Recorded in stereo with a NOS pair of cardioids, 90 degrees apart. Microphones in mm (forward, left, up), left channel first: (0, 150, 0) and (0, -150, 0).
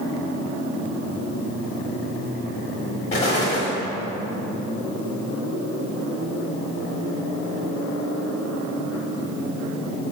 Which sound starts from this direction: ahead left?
An explosion, at 3.1 s.